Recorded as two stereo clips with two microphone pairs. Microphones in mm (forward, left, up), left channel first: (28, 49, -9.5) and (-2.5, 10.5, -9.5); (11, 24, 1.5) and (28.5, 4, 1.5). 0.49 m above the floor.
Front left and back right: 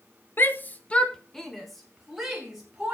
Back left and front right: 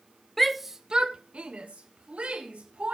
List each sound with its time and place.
0.4 s a shout: 55° left, 1.1 m; by 2.9 s 50° right, 3.5 m